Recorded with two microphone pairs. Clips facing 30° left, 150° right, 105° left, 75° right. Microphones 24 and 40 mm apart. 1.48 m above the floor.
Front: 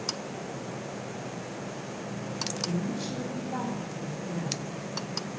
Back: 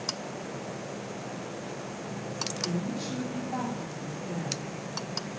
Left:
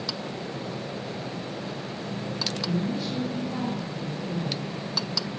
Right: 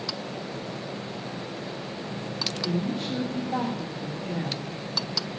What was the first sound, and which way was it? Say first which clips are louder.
A woman speaking: front 1 dB, right 1 dB; 80° right.